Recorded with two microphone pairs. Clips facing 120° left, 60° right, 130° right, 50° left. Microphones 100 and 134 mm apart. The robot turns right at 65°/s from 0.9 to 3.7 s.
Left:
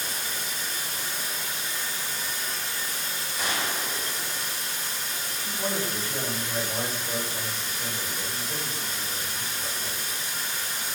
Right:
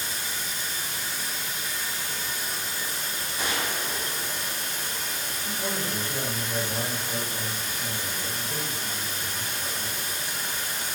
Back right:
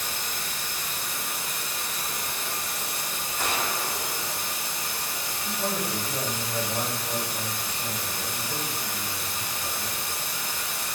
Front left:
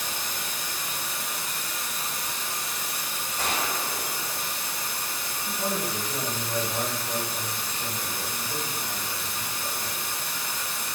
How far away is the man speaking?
About 1.0 m.